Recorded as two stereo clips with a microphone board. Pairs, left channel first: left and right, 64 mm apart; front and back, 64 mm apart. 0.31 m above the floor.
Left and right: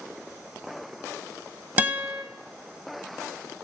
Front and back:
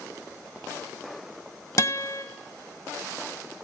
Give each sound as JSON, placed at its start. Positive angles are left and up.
{"t": 1.8, "sound": "a guitar", "azimuth_deg": -30, "distance_m": 0.6}